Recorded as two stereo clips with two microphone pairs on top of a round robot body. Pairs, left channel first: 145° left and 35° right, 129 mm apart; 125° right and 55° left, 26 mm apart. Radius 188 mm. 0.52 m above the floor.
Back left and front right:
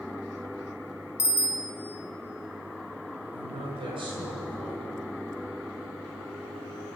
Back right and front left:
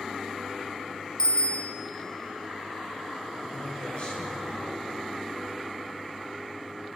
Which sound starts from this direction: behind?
A bicycle bell, at 1.2 s.